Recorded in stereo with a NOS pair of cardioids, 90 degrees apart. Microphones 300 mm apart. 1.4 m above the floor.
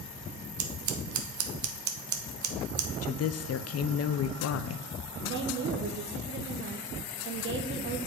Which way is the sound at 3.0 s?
50° left.